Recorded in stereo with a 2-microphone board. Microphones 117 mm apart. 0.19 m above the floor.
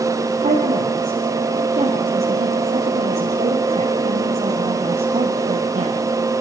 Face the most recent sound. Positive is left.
turn(degrees=-80)